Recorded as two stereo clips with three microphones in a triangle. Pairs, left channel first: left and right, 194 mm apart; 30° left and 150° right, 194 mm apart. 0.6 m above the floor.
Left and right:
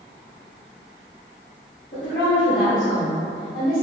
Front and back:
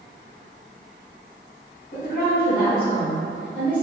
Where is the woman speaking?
75° left, 1.6 m.